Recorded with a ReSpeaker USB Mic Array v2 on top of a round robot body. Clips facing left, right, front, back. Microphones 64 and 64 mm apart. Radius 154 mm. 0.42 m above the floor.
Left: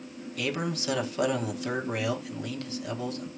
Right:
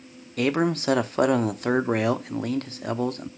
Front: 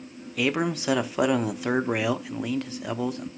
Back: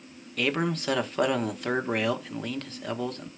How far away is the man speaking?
About 1.2 m.